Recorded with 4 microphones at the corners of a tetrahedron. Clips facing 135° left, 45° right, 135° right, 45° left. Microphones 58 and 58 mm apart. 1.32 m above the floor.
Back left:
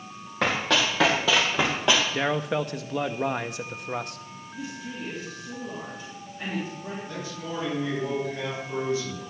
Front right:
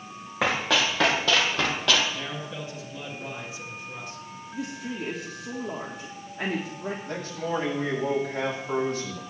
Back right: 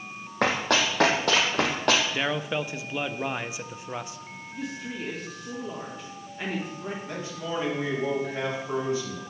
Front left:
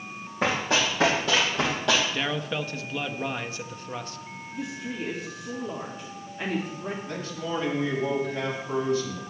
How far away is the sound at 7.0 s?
About 5.5 m.